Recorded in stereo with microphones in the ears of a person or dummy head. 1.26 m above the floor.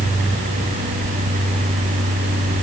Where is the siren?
I don't hear a siren.